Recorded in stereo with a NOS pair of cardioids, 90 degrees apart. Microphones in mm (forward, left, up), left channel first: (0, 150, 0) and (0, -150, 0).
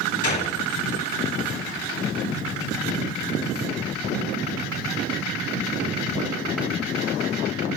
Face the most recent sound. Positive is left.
turn(degrees=25)